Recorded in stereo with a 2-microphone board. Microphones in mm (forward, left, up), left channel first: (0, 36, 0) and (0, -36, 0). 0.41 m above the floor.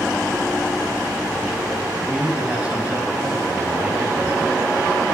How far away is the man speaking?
About 2.5 m.